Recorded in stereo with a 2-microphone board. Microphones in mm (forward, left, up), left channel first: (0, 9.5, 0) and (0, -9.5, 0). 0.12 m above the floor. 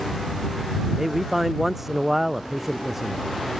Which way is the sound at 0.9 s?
15° right (ahead or behind).